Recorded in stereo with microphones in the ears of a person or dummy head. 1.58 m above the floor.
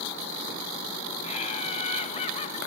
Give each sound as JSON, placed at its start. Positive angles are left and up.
{"t": 1.2, "sound": "laughter", "side_deg": 35, "distance_m": 1.0}